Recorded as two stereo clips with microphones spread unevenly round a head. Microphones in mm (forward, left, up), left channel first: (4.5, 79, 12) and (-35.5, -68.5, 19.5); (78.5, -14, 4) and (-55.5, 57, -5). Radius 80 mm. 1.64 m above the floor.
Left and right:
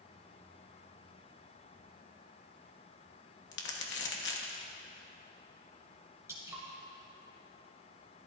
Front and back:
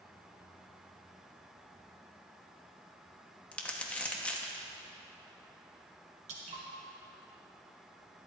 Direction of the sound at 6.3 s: 170° right.